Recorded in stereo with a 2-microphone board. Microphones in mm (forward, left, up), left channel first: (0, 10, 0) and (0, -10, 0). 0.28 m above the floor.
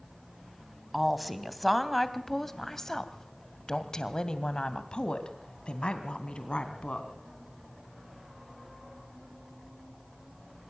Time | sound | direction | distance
0.9 | a woman speaking | 10° right (ahead or behind) | 2 m